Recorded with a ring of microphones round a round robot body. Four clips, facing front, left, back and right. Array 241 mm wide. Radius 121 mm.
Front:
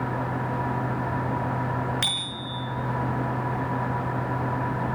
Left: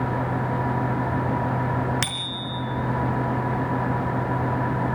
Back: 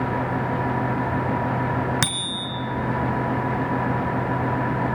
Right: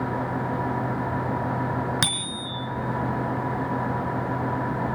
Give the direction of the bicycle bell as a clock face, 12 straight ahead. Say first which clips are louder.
Right 1 dB, back 5 dB; 5 o'clock.